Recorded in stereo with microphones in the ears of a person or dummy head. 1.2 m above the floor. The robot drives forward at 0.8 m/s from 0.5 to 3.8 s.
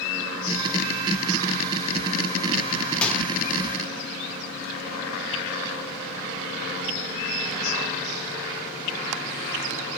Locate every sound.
3.0 s a microwave: 10° left (ahead or behind), 0.9 m